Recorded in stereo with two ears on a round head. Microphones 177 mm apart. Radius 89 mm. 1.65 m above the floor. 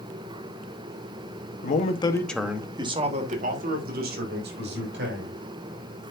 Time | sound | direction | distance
1.6 | a man speaking | 45° left (ahead or behind) | 1.2 m